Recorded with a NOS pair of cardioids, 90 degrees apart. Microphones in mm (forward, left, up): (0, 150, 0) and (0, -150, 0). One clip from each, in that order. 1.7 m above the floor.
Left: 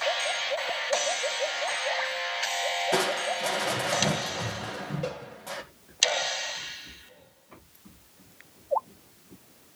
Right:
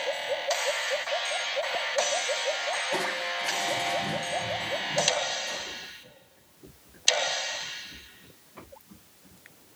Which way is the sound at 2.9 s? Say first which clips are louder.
Left 2 dB; 70° left.